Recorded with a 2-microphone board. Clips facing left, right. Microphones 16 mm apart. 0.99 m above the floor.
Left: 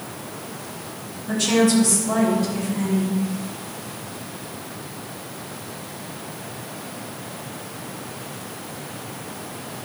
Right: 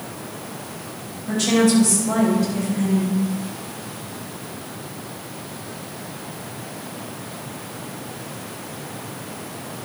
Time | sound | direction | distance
1.3 | a woman speaking | 30° right (ahead or behind) | 5 m